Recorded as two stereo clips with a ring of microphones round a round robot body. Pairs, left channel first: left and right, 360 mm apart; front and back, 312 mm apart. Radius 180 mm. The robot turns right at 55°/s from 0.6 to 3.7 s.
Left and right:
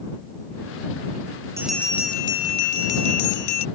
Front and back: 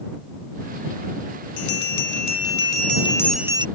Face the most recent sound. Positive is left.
turn(degrees=110)